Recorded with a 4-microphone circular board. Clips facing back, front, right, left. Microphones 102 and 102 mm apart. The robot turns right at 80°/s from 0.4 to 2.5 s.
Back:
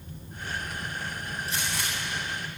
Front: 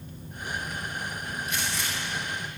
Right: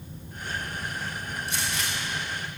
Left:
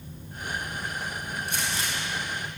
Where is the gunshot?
125° left, 7.5 m; by 1.9 s 160° left, 7.5 m.